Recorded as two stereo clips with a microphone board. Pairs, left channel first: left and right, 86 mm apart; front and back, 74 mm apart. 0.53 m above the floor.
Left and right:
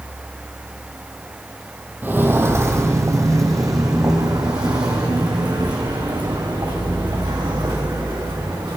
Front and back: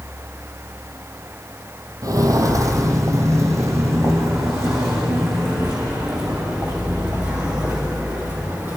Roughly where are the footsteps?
Behind right.